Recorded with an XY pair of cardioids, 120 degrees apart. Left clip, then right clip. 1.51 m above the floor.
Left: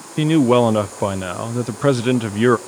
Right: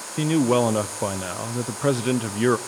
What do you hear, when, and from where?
0.2 s a man speaking: 30° left, 0.5 m